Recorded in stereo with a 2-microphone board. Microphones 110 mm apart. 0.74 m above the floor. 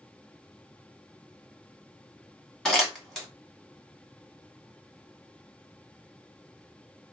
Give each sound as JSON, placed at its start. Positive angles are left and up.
{"t": 2.6, "sound": "crumpling", "side_deg": 5, "distance_m": 1.6}